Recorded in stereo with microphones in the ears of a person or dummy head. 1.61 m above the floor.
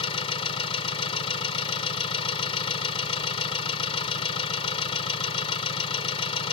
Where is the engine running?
30° left (ahead or behind).